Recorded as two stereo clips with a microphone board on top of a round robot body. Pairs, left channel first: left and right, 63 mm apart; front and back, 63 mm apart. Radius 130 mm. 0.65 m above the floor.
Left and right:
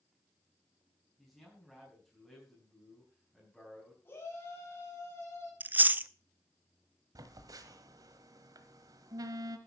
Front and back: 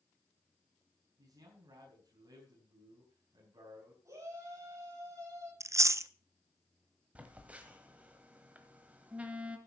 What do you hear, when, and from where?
1.2 s a man speaking: 170° left, 5 m
4.0 s a shout: 145° left, 5.5 m
5.6 s chewing: 145° right, 0.7 m
7.2 s a phone buzzing: 110° right, 1.3 m